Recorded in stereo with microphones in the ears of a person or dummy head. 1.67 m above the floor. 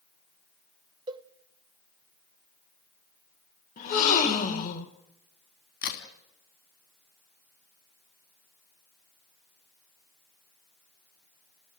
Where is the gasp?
45° left (ahead or behind), 2.5 m.